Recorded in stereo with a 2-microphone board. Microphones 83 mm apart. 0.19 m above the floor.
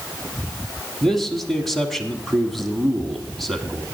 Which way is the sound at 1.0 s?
5° left (ahead or behind).